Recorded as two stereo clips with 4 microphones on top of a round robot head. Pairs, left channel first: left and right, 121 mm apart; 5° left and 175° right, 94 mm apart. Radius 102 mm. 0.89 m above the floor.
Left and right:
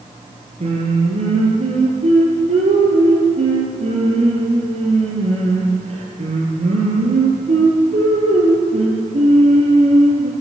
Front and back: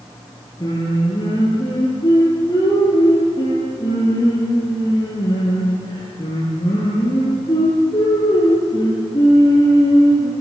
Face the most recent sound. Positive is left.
turn(degrees=-55)